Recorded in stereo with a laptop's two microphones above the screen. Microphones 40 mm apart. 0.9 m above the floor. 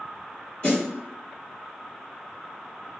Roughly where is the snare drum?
Left.